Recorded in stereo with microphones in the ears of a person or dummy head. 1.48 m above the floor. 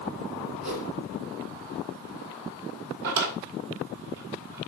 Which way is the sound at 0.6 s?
65° right (ahead or behind).